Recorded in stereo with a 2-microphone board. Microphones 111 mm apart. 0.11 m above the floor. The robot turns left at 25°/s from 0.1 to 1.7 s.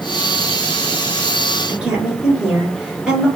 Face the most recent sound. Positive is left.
turn(degrees=-5)  # may be behind; listen again after turning